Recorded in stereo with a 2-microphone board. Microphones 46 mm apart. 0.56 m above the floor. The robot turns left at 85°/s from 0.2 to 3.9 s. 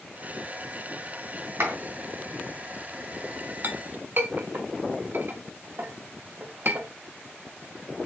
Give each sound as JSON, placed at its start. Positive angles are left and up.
{"t": 1.6, "sound": "a clap", "side_deg": -80, "distance_m": 3.5}
{"t": 3.6, "sound": "a clink", "side_deg": -45, "distance_m": 0.7}